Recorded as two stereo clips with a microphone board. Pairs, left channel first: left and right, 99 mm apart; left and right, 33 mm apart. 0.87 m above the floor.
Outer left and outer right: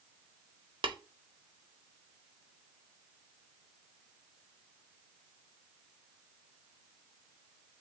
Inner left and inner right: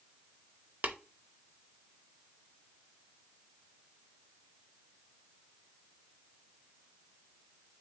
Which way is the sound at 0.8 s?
55° right (ahead or behind).